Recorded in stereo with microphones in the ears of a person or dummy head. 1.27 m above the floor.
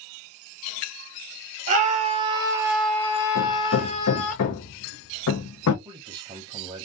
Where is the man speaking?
25° right (ahead or behind), 0.6 m.